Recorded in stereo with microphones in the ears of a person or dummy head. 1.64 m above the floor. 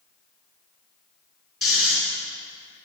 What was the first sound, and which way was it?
Snoring, centre (ahead or behind).